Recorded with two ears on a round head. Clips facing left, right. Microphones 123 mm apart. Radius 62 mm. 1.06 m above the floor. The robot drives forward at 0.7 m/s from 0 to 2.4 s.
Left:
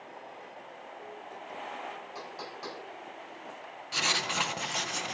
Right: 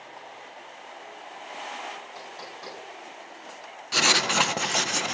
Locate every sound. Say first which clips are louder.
2.1 s knocking: right 1 dB; 5° left (ahead or behind), 7 m
3.9 s writing: right 8 dB; 60° right (ahead or behind), 0.5 m